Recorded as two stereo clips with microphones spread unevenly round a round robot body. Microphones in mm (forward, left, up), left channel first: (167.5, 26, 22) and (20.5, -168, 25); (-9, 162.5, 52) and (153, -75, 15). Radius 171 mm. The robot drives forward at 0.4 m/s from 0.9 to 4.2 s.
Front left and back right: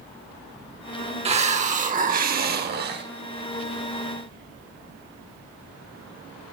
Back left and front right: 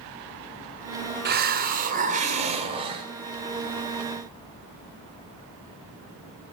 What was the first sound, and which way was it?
A hiss, 75° right.